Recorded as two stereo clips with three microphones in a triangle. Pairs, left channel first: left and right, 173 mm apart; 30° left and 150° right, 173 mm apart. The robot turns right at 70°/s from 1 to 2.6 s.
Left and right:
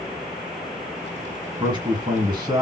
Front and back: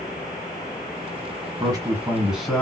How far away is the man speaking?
About 1.7 m.